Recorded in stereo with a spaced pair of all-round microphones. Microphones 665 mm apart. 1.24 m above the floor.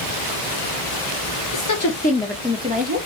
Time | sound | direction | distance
1.5 | a woman speaking | 40° left (ahead or behind) | 0.5 m